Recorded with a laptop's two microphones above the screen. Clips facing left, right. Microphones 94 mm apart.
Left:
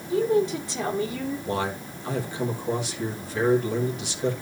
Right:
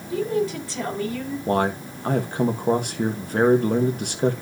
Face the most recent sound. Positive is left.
turn(degrees=-55)  # may be behind; listen again after turning